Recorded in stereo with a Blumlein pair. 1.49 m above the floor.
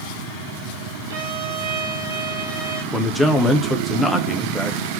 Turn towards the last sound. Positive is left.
turn(degrees=0)